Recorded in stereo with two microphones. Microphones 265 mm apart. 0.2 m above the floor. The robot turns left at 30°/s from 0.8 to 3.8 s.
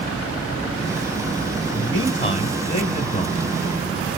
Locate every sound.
1.7 s a man speaking: 20° left (ahead or behind), 1.7 m; by 3.5 s 25° left (ahead or behind), 1.7 m